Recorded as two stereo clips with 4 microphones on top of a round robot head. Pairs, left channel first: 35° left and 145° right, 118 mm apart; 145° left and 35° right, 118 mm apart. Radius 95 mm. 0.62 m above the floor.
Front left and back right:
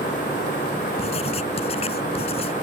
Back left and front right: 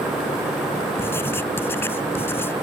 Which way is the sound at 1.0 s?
75° left.